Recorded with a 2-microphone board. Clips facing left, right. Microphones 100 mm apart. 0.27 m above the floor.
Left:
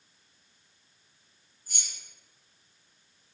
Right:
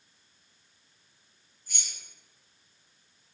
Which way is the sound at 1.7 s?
40° left (ahead or behind).